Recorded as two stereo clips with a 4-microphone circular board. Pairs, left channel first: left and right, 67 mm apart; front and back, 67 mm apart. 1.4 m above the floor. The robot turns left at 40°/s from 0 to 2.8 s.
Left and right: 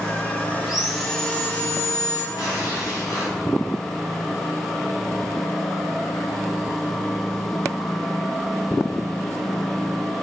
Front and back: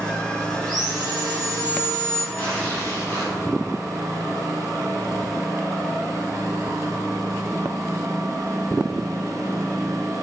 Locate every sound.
0.6 s sawing: 170° right, 1.9 m; by 2.2 s 125° left, 1.9 m
2.3 s tearing paper: 75° left, 3.5 m; by 3.3 s 55° left, 3.5 m